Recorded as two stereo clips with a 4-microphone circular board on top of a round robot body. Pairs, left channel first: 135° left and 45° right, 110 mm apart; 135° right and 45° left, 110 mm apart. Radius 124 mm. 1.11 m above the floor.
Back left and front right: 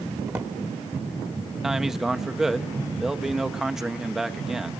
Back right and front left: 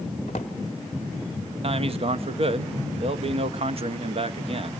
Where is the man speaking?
40° left, 1.1 m.